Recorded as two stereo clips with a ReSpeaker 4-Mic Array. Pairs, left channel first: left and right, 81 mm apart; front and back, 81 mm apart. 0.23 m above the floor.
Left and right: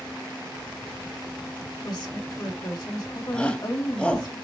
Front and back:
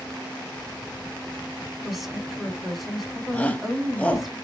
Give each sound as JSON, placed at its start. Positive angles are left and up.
{"t": 1.8, "sound": "a woman speaking", "azimuth_deg": 90, "distance_m": 2.5}
{"t": 3.3, "sound": "a shout", "azimuth_deg": 35, "distance_m": 1.0}